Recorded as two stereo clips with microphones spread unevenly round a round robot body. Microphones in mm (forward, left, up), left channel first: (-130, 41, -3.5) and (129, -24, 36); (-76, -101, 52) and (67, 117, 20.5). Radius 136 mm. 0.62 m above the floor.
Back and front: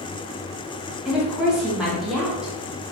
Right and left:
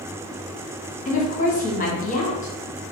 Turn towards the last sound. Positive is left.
turn(degrees=-125)